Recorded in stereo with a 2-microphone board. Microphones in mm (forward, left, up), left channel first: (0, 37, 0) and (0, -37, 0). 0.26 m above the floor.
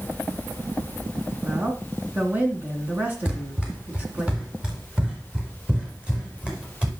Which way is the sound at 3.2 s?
15° right (ahead or behind).